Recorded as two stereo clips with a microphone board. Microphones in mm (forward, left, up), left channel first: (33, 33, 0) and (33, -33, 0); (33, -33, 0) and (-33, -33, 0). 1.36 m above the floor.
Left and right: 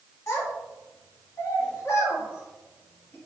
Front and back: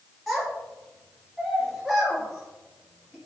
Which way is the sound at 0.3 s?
80° left.